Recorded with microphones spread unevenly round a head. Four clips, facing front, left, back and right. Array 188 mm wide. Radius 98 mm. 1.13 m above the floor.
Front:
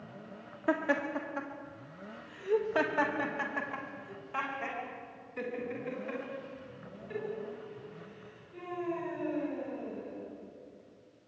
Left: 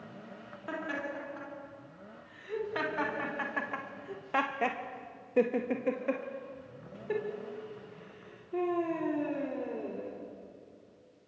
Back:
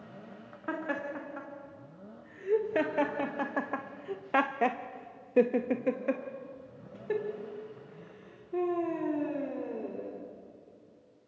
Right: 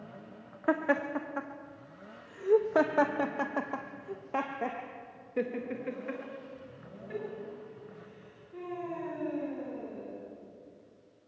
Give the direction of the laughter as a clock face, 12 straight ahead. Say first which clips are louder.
Right 9 dB, front 4 dB; 3 o'clock.